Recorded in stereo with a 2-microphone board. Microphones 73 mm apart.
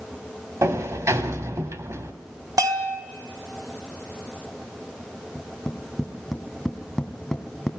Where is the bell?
55° right (ahead or behind), 1.3 m.